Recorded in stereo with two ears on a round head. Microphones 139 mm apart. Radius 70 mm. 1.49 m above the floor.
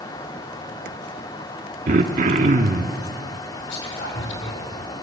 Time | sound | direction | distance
1.9 | throat clearing | 50° right (ahead or behind) | 1.4 m
3.7 | whispering | 90° left | 6.5 m